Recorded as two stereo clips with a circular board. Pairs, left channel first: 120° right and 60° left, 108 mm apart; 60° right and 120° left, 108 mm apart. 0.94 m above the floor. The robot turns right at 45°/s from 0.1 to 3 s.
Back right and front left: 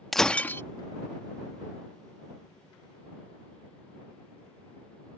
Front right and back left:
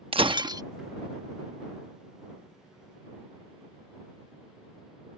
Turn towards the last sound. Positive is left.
turn(degrees=-80)